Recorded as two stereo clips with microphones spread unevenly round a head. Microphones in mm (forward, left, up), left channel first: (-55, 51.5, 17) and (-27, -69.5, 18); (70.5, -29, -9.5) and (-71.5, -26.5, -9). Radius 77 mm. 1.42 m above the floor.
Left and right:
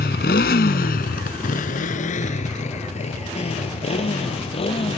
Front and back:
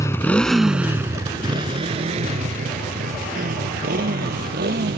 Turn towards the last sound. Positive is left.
turn(degrees=145)